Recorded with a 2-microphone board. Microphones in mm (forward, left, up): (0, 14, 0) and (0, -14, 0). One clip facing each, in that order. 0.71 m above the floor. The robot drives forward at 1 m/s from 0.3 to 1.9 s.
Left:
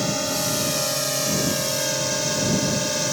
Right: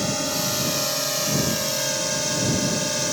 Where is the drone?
Centre (ahead or behind).